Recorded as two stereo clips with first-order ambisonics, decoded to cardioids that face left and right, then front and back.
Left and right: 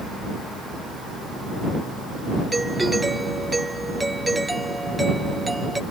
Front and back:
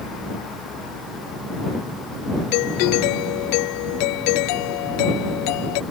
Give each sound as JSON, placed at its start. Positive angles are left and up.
{"t": 2.5, "sound": "a doorbell", "azimuth_deg": -5}